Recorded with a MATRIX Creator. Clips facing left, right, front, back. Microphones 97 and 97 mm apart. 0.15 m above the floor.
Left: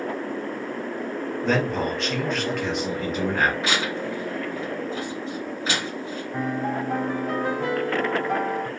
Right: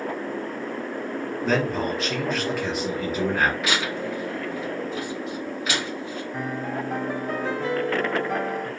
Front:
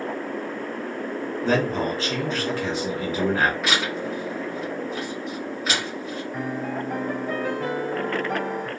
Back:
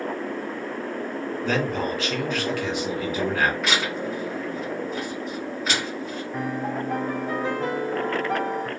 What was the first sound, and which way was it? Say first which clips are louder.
A man speaking: even, front 3 dB; straight ahead.